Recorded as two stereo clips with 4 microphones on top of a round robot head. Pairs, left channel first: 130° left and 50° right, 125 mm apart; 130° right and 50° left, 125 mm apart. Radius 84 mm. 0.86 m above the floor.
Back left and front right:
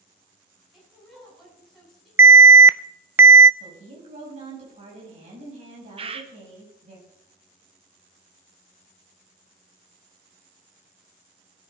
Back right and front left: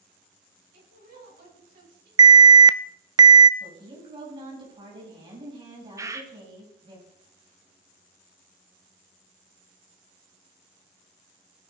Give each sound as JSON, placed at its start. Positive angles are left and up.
{"t": 0.7, "sound": "a woman speaking", "azimuth_deg": 40, "distance_m": 8.5}
{"t": 2.2, "sound": "an alarm", "azimuth_deg": 10, "distance_m": 0.5}
{"t": 3.6, "sound": "a woman speaking", "azimuth_deg": -5, "distance_m": 6.5}
{"t": 6.0, "sound": "a bird", "azimuth_deg": -15, "distance_m": 1.3}